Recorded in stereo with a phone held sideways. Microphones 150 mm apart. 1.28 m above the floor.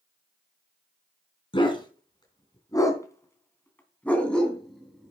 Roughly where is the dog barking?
Left.